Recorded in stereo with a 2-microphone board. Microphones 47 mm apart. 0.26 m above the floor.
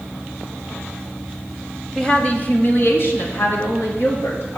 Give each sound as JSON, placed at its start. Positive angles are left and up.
{"t": 1.9, "sound": "a woman speaking", "side_deg": 10, "distance_m": 1.0}